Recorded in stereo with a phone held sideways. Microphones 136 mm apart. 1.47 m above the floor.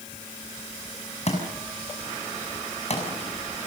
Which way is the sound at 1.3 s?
50° left (ahead or behind).